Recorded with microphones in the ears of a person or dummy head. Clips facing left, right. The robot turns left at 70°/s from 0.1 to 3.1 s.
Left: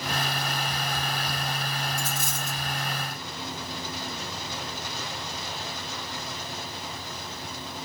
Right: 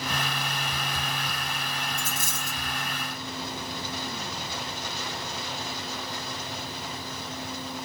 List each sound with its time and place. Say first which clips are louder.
2.0 s a dropped coin: left 2 dB; 105° left, 1.5 m; by 2.6 s 65° left, 1.5 m